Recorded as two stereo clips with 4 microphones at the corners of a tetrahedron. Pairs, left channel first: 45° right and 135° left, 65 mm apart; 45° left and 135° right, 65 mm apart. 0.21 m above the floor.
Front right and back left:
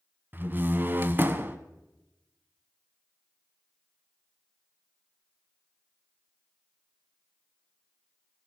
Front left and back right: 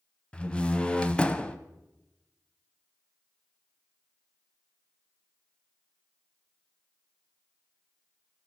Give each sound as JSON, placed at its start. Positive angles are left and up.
{"t": 0.3, "sound": "a door slam", "azimuth_deg": 110, "distance_m": 0.9}